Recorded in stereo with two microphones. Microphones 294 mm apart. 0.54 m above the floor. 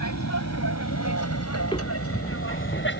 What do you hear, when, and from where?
0.0 s an aircraft: 65° left (ahead or behind); by 3.0 s 40° left (ahead or behind)
1.6 s footsteps: 15° left (ahead or behind); by 2.9 s 30° left (ahead or behind)